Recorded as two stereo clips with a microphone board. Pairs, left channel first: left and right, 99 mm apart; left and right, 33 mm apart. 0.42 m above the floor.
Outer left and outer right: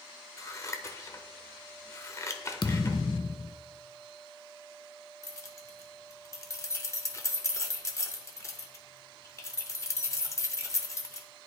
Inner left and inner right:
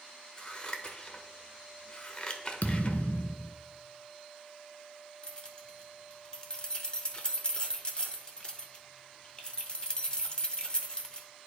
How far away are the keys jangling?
About 0.7 m.